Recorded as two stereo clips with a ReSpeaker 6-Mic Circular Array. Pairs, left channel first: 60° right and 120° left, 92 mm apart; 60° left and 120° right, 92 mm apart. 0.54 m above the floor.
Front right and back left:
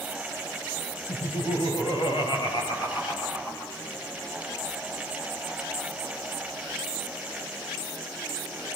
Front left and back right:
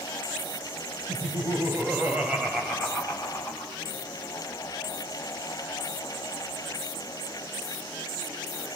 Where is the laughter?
75° right, 3 m; by 3.7 s 10° right, 3.5 m.